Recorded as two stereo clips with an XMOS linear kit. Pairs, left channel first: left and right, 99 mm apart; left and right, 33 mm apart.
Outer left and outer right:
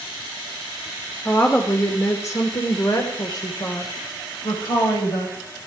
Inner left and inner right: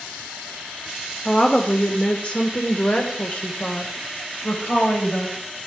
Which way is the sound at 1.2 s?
15° left (ahead or behind).